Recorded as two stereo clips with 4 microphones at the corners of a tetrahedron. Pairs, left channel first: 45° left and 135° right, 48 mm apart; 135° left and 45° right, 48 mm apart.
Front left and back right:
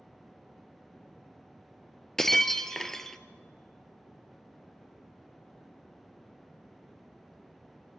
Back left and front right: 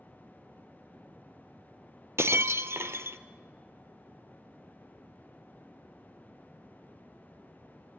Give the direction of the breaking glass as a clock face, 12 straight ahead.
1 o'clock.